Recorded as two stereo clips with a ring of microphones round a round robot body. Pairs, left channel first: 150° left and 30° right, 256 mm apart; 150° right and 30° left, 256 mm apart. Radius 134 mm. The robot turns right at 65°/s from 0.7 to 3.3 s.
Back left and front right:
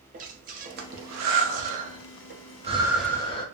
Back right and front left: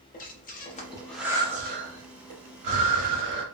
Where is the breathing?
90° right, 0.7 m; by 3.5 s 80° left, 0.7 m.